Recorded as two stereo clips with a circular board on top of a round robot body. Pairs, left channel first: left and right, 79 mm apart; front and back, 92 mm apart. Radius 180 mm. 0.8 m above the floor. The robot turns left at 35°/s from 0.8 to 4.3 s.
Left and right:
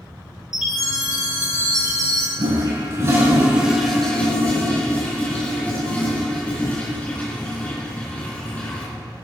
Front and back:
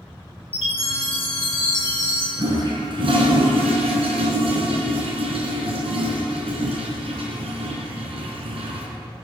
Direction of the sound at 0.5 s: 10° right.